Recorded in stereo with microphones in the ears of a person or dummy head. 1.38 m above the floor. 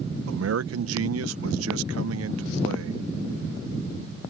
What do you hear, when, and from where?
0.3 s a man speaking: 80° right